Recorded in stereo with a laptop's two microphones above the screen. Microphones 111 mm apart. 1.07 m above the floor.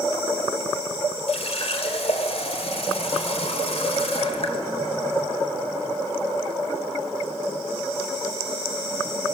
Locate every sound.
1.3 s a running tap: 65° left (ahead or behind), 2.5 m